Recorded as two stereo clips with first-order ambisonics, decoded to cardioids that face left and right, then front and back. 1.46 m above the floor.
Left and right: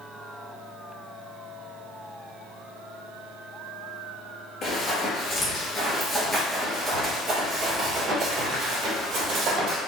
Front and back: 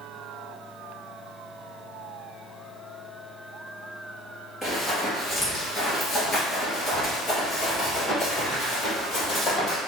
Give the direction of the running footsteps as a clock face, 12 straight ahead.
9 o'clock.